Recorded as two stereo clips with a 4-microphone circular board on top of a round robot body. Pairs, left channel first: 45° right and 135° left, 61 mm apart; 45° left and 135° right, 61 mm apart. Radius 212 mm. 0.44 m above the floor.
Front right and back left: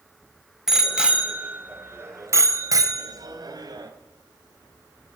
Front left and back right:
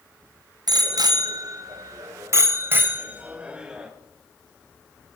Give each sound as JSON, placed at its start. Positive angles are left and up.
{"t": 0.7, "sound": "a bicycle bell", "azimuth_deg": -140, "distance_m": 3.5}